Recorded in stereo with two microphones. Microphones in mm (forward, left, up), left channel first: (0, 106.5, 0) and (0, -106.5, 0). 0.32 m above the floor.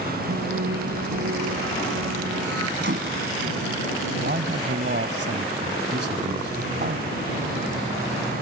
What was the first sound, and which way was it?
Singing, 85° right.